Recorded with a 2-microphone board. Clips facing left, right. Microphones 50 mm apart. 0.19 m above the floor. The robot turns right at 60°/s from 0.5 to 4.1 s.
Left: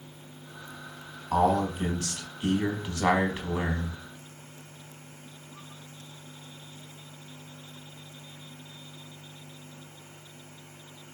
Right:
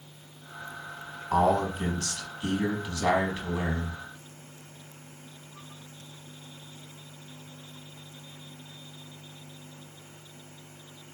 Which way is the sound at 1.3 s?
5° right (ahead or behind).